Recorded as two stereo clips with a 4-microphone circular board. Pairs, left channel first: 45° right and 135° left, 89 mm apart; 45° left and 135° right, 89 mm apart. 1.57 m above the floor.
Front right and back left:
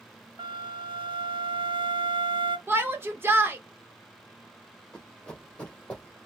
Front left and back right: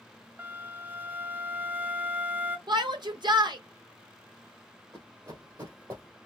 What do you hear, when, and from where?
0.4 s a flute: 155° left, 0.5 m
2.7 s a shout: 165° right, 1.1 m
4.9 s running footsteps: 120° right, 2.5 m; by 6.2 s 110° right, 2 m